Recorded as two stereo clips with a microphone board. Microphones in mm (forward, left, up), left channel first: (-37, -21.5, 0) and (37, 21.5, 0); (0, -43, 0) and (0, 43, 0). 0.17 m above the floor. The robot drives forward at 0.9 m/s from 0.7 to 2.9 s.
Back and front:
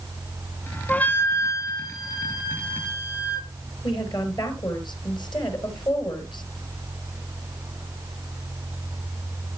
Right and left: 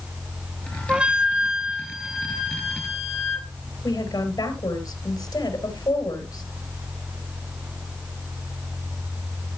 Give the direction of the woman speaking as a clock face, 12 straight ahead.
4 o'clock.